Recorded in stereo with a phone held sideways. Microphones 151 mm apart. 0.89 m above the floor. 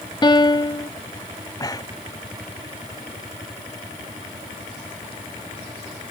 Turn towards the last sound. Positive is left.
turn(degrees=25)  # may be behind; listen again after turning